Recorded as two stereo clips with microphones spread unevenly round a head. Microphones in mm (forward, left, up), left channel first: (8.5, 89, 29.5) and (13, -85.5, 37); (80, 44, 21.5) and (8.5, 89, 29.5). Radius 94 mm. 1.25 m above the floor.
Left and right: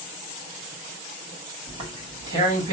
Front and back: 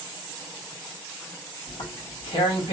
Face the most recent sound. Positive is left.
turn(degrees=-25)